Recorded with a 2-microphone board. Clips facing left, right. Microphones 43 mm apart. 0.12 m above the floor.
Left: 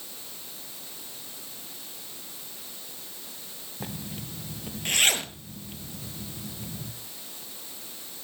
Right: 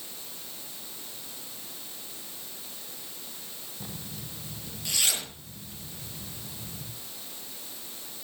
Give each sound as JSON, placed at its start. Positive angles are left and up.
{"t": 3.8, "sound": "a zipper", "side_deg": 45, "distance_m": 2.0}